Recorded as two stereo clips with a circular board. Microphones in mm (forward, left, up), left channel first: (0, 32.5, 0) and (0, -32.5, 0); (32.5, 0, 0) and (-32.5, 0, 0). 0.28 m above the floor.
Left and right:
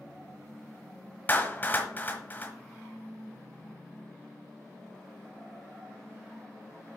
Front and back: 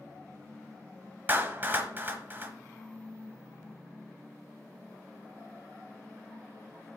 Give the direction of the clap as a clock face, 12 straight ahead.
7 o'clock.